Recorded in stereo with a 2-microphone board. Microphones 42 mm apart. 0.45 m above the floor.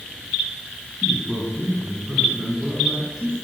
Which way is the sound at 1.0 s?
20° right (ahead or behind).